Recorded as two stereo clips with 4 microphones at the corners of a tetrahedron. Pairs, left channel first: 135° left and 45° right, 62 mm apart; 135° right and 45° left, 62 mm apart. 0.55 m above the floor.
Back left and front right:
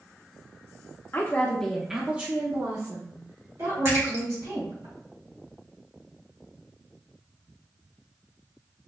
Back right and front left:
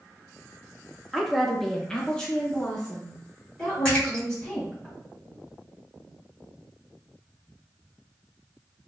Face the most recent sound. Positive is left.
turn(degrees=-60)